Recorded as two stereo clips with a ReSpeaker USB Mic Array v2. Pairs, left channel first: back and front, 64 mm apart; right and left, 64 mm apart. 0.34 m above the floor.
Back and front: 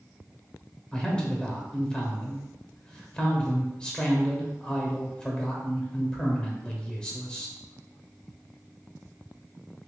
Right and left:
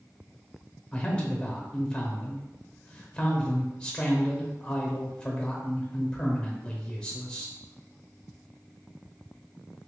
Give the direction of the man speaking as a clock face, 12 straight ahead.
4 o'clock.